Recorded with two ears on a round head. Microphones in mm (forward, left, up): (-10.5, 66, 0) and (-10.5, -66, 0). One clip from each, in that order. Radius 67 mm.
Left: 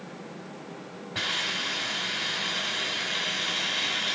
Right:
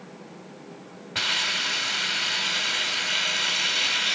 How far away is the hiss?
About 2.5 m.